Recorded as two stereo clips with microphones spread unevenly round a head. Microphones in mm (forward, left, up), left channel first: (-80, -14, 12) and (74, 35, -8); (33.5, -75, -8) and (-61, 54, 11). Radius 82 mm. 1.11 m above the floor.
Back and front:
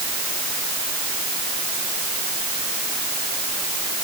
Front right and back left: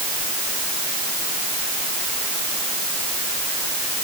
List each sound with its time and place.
Only background noise.